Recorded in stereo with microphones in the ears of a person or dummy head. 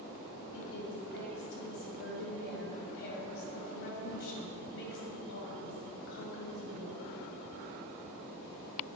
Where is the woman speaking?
65° left (ahead or behind), 2 m.